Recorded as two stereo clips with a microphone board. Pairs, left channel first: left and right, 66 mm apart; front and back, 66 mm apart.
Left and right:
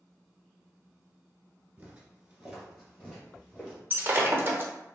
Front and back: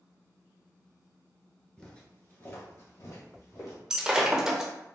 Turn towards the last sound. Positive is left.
turn(degrees=-105)